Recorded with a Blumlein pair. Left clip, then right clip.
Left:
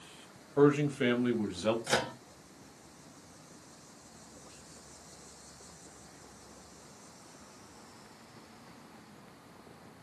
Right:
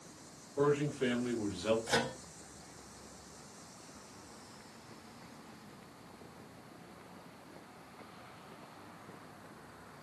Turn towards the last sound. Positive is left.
turn(degrees=25)